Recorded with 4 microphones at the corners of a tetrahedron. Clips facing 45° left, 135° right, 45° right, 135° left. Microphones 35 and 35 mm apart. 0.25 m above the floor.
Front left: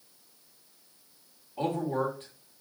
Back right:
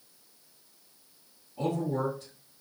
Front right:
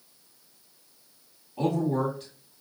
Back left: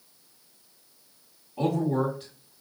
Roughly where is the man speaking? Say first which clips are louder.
Front left 1 dB, even; ahead left.